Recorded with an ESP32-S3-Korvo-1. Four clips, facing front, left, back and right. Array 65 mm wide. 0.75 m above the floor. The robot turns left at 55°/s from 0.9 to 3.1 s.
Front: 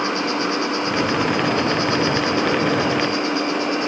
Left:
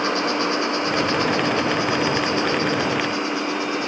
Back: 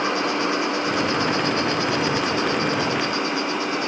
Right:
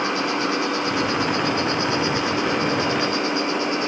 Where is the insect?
100° left, 3 m; by 3.9 s 20° right, 3 m.